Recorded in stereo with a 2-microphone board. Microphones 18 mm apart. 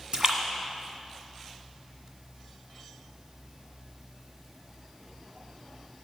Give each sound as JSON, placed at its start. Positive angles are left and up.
{"t": 0.1, "sound": "a splash", "side_deg": -50, "distance_m": 1.6}